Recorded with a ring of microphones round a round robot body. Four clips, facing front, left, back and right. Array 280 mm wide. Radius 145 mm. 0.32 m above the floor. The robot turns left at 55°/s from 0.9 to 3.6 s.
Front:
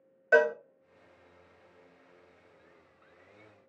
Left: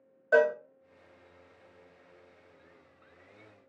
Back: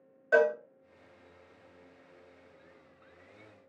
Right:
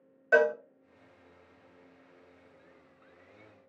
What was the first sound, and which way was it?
A cowbell, 20° right.